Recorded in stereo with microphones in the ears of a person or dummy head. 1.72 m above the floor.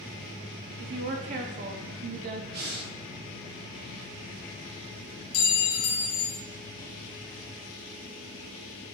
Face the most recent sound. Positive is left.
turn(degrees=30)  # may be behind; listen again after turning